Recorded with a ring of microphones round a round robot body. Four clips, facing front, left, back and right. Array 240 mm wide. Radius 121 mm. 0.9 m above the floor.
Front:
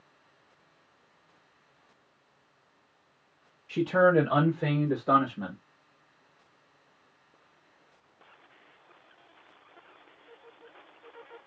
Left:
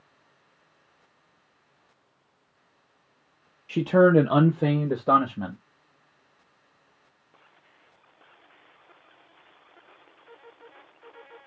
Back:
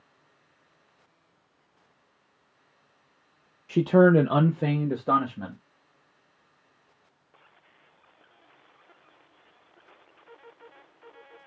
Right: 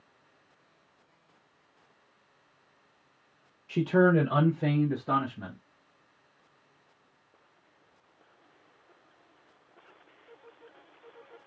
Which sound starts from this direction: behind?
A man speaking, at 3.7 s.